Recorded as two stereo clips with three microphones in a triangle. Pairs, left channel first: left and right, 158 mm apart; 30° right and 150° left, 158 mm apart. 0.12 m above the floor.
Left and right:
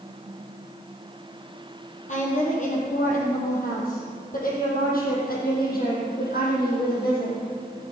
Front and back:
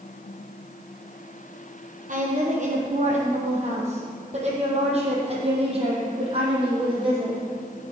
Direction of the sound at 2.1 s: 120° left.